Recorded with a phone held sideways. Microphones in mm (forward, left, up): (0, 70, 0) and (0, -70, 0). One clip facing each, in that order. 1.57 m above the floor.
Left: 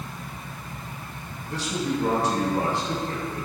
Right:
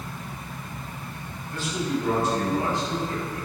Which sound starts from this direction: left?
A man speaking, at 1.5 s.